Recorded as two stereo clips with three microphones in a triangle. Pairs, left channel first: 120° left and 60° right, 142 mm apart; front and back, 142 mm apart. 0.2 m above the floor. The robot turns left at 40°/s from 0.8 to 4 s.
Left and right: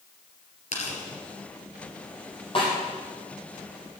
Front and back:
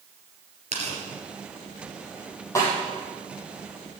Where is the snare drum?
70° left, 5.5 m; by 2.7 s 60° left, 5.5 m.